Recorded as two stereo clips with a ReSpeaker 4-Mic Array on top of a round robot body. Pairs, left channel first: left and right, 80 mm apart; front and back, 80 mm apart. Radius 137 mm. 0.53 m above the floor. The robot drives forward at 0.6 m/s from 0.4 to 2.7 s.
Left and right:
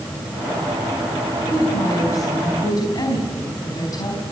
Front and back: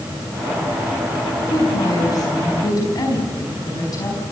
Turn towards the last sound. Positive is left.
turn(degrees=45)